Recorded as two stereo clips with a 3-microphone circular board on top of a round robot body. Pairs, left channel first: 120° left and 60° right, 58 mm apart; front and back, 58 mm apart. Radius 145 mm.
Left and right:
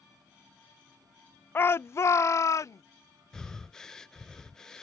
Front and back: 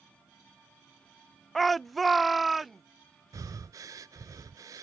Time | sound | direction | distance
1.6 | a shout | 85° left | ?
3.3 | breathing | 160° right | ?